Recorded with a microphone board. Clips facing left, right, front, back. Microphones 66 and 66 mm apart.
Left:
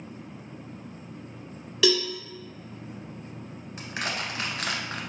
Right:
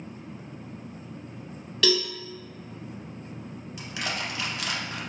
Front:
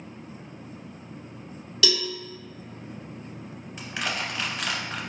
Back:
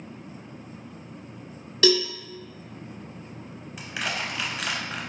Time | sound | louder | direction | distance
1.8 | a cowbell | left 1 dB, back 6 dB | 165° left | 1.0 m
3.8 | crushing | left 1 dB, even | 100° left | 1.1 m